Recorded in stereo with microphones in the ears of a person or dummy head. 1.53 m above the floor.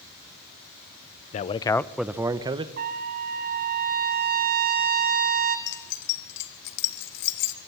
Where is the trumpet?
50° right (ahead or behind), 1.9 m.